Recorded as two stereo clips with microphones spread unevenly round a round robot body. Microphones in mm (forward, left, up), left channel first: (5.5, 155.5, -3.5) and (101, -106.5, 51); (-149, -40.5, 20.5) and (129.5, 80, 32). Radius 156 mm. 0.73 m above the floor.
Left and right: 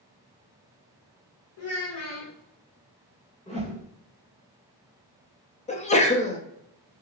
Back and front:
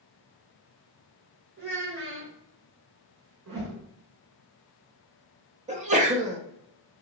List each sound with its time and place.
1.6 s a child speaking: 80° left, 1.6 m
3.5 s a whoosh: 45° left, 1.8 m
5.7 s a sneeze: 80° left, 1.0 m